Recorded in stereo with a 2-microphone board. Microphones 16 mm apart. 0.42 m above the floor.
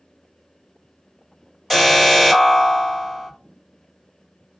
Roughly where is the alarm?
Centre.